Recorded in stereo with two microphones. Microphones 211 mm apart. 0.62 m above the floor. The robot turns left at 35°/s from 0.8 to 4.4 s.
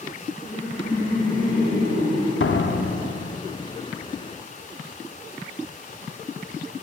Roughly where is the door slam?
Left.